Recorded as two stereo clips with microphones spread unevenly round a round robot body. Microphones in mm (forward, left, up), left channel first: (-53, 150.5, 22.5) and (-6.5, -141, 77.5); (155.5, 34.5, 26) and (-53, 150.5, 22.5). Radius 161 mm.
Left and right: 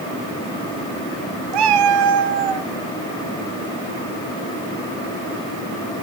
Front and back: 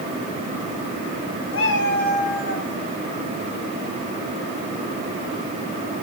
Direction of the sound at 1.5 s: 85° right.